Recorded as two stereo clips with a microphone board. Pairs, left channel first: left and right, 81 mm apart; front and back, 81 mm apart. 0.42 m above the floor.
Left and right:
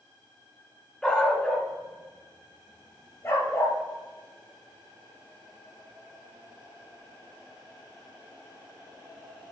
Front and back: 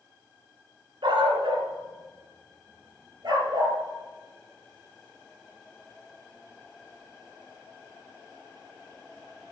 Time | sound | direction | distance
1.0 | a dog barking | 170° left | 1.7 m